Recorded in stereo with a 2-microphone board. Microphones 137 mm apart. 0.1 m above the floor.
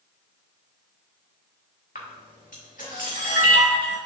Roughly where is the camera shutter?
Left.